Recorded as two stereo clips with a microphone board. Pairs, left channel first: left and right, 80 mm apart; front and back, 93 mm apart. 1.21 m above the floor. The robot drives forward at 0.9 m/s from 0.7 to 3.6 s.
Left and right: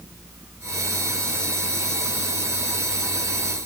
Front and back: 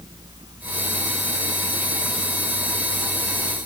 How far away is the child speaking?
No child speaking in this recording.